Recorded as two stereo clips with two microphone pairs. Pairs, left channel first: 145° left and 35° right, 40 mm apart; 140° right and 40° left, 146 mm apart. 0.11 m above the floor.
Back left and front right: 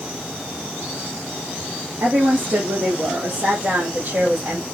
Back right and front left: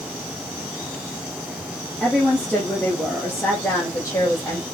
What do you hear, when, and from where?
2.0 s a woman speaking: 60° right, 4.5 m; by 4.7 s 80° right, 4 m